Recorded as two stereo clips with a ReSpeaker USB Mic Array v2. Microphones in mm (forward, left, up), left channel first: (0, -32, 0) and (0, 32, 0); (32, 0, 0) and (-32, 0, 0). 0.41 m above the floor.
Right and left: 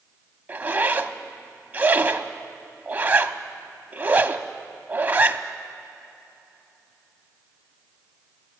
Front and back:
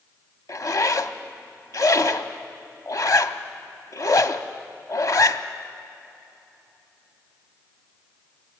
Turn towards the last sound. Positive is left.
turn(degrees=30)